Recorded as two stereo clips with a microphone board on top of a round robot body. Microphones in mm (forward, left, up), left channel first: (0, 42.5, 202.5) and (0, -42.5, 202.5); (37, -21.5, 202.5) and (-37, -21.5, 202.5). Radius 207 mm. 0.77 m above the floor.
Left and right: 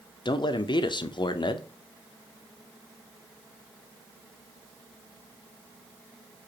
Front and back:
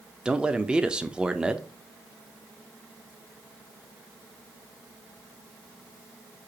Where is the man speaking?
105° left, 0.7 m.